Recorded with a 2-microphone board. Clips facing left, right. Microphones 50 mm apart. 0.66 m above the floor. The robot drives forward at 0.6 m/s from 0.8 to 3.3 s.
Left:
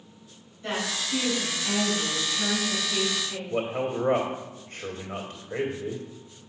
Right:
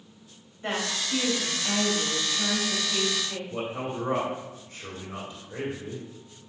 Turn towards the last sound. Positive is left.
turn(degrees=45)  # may be behind; listen again after turning